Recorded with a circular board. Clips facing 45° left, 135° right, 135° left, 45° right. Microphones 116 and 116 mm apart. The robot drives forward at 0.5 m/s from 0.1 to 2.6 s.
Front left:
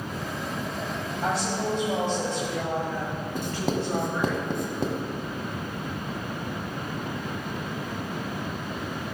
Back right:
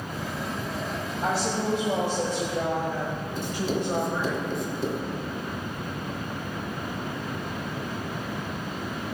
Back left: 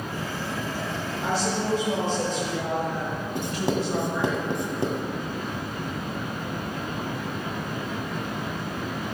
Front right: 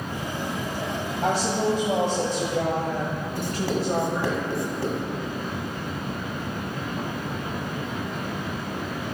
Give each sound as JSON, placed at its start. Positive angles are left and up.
{"t": 1.2, "sound": "a woman speaking", "azimuth_deg": -45, "distance_m": 2.0}
{"t": 3.4, "sound": "writing", "azimuth_deg": 65, "distance_m": 1.4}